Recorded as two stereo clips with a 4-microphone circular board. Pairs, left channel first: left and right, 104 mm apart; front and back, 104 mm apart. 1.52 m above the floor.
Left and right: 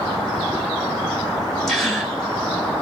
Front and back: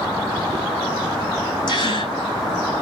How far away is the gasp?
About 1.8 m.